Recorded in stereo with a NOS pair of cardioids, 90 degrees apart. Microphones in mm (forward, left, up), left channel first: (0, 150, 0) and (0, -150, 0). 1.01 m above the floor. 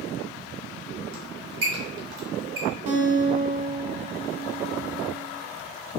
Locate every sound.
1.1 s a squeak: 55° right, 1.5 m
2.9 s a guitar: 50° right, 0.9 m